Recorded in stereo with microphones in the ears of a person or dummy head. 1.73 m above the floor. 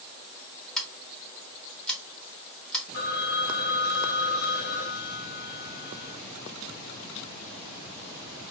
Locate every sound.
0.8 s scissors: 5° left (ahead or behind), 0.8 m
2.9 s a phone ringing: 60° left (ahead or behind), 1.1 m